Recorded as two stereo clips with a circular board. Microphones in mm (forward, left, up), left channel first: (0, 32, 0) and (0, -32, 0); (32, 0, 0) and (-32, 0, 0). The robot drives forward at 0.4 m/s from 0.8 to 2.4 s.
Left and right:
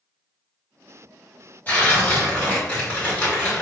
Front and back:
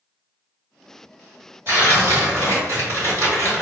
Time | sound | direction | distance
1.7 | tearing paper | 140° left | 2.0 m